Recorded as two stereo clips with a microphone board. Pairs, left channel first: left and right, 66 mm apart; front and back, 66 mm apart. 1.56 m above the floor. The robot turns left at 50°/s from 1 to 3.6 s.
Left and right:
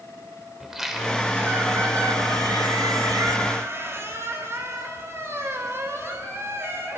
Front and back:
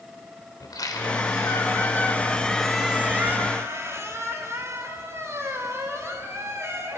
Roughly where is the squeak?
Ahead.